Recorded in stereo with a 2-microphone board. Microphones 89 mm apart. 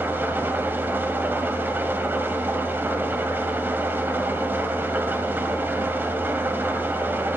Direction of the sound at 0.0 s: 25° right (ahead or behind).